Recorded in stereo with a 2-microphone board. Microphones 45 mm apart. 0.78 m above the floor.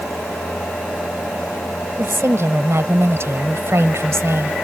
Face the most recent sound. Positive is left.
turn(degrees=-70)  # may be behind; listen again after turning